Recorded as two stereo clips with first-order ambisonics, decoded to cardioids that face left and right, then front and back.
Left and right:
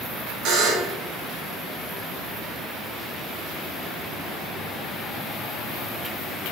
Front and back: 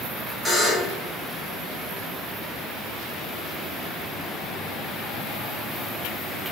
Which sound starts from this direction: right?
A buzzer, at 0.5 s.